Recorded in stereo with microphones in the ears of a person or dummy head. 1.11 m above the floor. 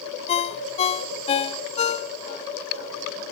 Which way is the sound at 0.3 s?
35° left (ahead or behind).